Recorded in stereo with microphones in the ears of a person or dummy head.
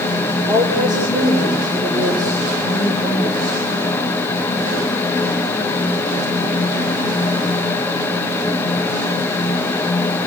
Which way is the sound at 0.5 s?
20° right (ahead or behind).